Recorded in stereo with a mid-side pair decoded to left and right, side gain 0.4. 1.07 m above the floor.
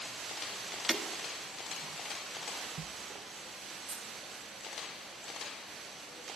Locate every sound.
0.9 s breaking glass: 25° right, 1.2 m
3.9 s a dropped coin: 65° right, 1.9 m